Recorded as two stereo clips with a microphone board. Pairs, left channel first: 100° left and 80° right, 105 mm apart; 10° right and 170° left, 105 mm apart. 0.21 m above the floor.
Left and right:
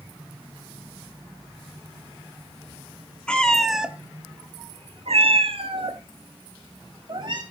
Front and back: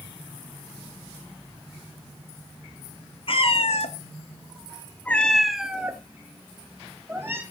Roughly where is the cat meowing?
Ahead.